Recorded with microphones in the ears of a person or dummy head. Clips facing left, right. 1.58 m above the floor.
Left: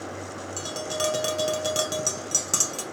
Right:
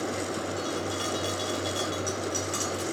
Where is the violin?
No violin in this recording.